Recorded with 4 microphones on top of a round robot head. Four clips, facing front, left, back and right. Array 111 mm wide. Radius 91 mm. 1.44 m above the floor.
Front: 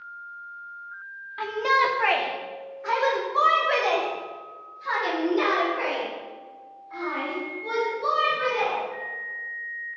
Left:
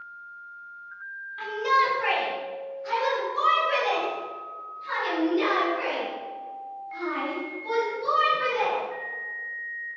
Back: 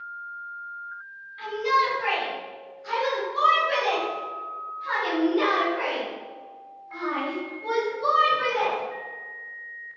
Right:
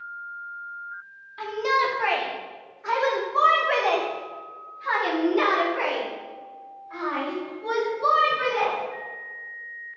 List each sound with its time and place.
1.4 s a shout: 25° right, 4.5 m; by 8.8 s 100° right, 10.5 m